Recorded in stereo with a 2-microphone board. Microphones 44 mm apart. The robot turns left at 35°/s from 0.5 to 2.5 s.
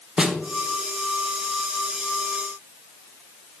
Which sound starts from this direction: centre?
A snare drum, at 0.2 s.